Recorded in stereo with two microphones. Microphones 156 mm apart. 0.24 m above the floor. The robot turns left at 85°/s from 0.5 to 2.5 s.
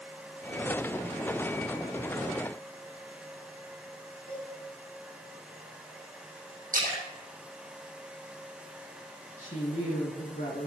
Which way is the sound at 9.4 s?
55° left (ahead or behind).